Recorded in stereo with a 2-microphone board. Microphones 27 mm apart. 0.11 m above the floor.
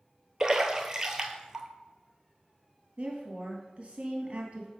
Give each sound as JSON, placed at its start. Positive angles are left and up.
{"t": 0.4, "sound": "a splash", "side_deg": -20, "distance_m": 0.9}
{"t": 3.0, "sound": "a woman speaking", "side_deg": -50, "distance_m": 2.0}